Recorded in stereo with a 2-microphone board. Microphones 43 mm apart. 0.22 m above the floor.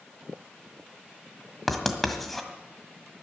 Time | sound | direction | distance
1.7 | writing | 5° left (ahead or behind) | 1.6 m